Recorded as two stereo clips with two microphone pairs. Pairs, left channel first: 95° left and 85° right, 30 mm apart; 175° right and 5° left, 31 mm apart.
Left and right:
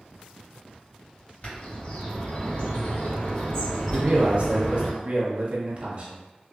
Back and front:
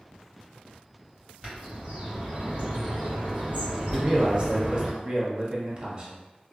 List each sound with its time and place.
1.4 s a bird: 55° left, 2.0 m
3.9 s a man speaking: 50° right, 0.7 m